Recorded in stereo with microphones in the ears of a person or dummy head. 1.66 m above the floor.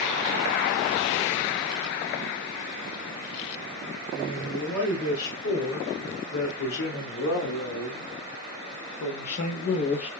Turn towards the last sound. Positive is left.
turn(degrees=30)  # may be behind; listen again after turning